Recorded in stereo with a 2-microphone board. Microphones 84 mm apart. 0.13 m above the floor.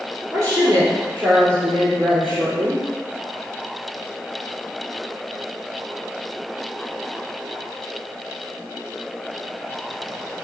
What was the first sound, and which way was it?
A woman speaking, 40° right (ahead or behind).